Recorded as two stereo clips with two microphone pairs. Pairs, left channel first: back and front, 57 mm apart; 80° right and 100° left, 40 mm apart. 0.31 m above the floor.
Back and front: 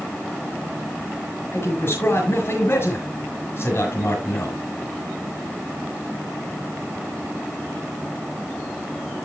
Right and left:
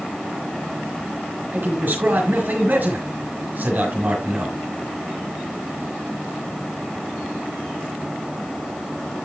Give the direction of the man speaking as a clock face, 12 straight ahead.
7 o'clock.